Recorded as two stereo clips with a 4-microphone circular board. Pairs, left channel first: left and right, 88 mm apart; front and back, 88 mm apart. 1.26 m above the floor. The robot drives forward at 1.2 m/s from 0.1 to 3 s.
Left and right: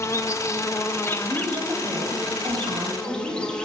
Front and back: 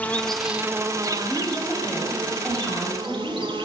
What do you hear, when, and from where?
0.0 s an insect: 60° left, 1.1 m; by 3.6 s 170° left, 3.5 m
1.2 s a woman speaking: 65° right, 6 m; by 3.5 s 90° right, 5.5 m